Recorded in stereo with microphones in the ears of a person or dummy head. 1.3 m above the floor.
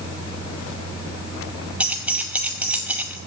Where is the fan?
20° left (ahead or behind), 5.5 m.